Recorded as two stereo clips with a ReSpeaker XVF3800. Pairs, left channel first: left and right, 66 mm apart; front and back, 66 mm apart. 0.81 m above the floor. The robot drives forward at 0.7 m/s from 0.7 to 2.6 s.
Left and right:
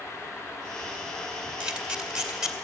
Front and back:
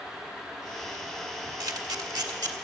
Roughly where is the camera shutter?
Behind.